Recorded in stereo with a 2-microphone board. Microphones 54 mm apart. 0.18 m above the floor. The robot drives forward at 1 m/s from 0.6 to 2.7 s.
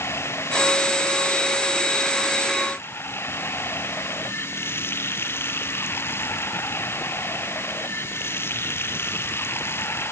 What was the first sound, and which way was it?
Running water, 50° left (ahead or behind).